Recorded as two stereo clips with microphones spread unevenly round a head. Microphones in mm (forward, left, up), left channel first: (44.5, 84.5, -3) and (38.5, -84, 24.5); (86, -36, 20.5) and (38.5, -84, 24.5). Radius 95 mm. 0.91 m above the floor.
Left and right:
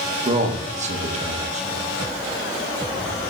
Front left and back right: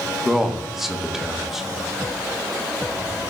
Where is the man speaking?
45° right, 1.1 m.